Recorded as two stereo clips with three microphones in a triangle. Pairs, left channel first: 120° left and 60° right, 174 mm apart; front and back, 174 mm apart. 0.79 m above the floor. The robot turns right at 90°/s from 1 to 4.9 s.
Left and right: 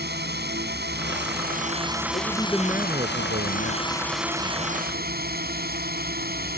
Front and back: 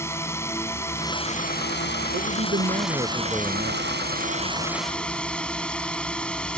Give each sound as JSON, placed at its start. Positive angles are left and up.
{"t": 0.0, "sound": "a drone", "azimuth_deg": -75}
{"t": 2.1, "sound": "a man speaking", "azimuth_deg": 165}